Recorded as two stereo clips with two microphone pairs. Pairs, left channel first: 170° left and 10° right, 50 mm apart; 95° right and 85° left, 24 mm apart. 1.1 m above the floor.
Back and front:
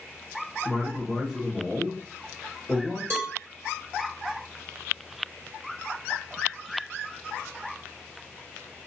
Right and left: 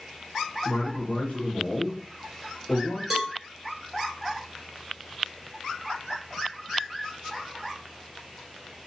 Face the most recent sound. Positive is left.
turn(degrees=5)